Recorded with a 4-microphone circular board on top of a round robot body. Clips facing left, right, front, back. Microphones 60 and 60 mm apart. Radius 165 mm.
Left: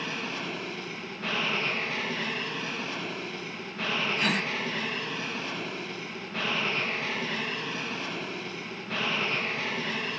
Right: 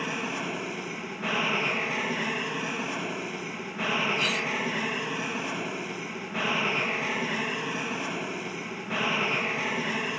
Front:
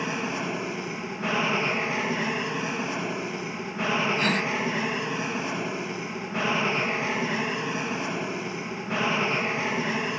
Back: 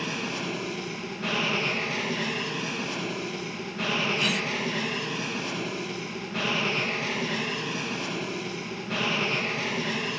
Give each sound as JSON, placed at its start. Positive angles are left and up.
{"t": 0.0, "sound": "an aircraft", "azimuth_deg": -30}
{"t": 4.2, "sound": "a gasp", "azimuth_deg": 45}